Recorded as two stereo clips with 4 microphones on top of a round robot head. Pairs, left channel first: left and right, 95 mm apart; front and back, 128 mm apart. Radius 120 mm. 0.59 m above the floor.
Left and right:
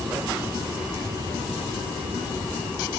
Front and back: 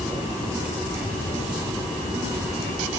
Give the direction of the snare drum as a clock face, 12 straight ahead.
No snare drum in this recording.